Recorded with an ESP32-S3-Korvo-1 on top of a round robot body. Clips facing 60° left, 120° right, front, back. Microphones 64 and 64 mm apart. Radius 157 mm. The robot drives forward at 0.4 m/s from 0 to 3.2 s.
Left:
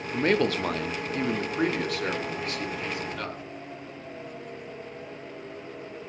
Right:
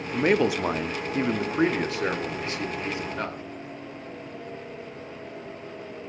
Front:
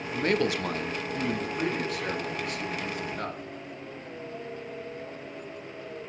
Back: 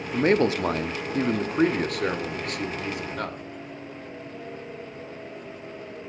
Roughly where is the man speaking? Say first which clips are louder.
Right 2 dB, back 5 dB; behind.